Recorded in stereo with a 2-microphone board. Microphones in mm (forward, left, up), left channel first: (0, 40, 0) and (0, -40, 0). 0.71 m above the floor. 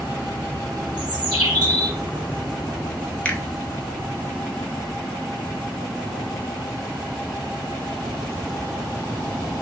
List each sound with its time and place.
1.0 s a bird: 55° right (ahead or behind), 2 m
3.2 s a finger snap: 15° left (ahead or behind), 0.8 m